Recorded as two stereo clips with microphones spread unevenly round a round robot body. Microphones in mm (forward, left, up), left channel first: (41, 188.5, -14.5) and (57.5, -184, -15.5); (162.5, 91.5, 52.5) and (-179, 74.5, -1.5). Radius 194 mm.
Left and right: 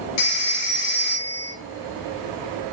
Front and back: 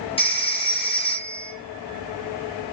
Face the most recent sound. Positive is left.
turn(degrees=80)